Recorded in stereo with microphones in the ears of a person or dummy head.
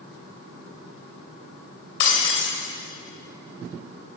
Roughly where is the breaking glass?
Left.